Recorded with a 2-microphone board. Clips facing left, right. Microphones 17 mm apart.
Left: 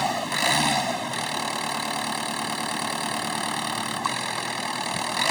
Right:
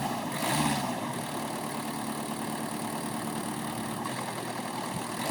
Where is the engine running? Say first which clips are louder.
Left 7 dB; 70° left (ahead or behind).